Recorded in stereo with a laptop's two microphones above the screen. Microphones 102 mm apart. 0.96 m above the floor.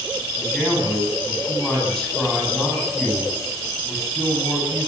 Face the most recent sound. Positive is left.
turn(degrees=5)  # may be behind; listen again after turning